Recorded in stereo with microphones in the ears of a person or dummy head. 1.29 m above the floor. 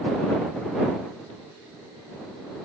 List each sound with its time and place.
Only background noise.